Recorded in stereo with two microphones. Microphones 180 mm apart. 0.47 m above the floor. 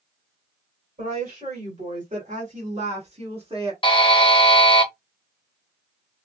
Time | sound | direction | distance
1.0 | a woman speaking | 45° right (ahead or behind) | 2.5 m
3.8 | a buzzer | 30° left (ahead or behind) | 1.0 m